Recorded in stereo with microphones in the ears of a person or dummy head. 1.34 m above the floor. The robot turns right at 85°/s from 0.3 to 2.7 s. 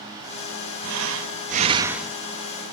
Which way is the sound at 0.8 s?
105° right.